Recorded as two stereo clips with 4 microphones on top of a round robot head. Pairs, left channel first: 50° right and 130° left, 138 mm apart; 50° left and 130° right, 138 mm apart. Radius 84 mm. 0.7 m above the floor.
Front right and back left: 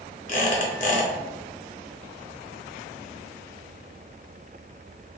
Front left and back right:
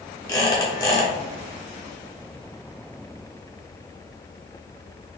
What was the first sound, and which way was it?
A squeak, 15° right.